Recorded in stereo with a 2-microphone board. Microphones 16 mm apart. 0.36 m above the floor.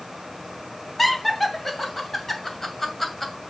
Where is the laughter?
10° left (ahead or behind), 2 m.